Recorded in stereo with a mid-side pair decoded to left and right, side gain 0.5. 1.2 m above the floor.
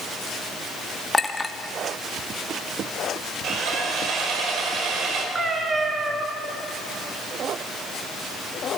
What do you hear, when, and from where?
1.1 s a clink: 20° left, 1.2 m
3.4 s sawing: 60° right, 4 m
5.3 s a cat meowing: 35° right, 4 m